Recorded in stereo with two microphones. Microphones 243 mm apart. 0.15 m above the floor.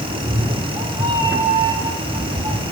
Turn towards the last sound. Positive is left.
turn(degrees=-20)  # may be behind; listen again after turning